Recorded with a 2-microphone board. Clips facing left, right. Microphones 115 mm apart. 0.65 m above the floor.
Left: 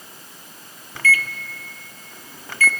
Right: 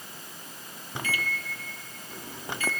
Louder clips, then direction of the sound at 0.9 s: Left 8 dB; 20° right (ahead or behind).